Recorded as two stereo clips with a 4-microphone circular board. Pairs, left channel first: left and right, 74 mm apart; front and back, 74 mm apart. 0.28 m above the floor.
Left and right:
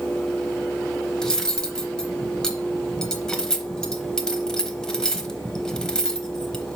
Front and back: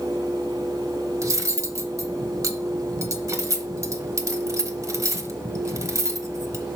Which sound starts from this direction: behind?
Cutlery clinking, at 1.2 s.